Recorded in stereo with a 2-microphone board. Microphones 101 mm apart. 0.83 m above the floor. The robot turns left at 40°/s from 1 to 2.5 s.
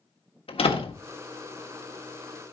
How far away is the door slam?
About 1.4 m.